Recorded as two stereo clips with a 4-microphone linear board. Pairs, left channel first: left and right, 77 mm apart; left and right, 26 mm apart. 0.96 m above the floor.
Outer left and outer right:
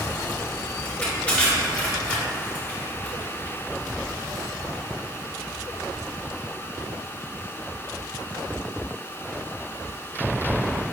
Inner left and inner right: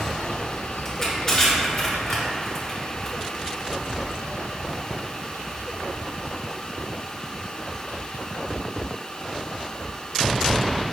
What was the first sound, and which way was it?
Crushing, 20° left (ahead or behind).